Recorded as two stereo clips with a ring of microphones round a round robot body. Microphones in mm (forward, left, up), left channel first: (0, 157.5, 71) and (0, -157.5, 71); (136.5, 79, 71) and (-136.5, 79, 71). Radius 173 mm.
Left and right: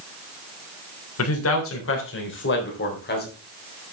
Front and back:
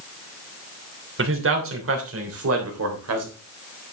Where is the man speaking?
135° left, 3 m; by 3.3 s 150° left, 3.5 m.